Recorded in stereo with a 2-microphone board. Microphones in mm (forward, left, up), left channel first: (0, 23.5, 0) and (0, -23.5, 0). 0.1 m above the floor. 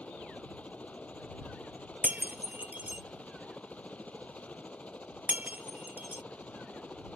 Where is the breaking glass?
40° right (ahead or behind).